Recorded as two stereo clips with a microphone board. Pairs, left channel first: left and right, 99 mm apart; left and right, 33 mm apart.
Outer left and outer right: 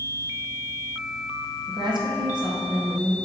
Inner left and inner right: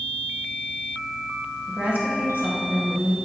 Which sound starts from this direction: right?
A woman speaking, at 1.7 s.